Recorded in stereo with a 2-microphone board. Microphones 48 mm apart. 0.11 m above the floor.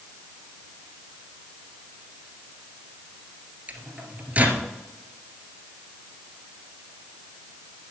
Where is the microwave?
35° right (ahead or behind), 1.9 m.